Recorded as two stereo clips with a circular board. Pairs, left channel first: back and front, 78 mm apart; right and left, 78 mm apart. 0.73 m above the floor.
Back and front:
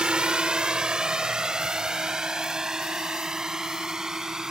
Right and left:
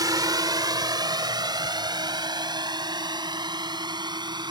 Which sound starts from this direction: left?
A drone, at 0.0 s.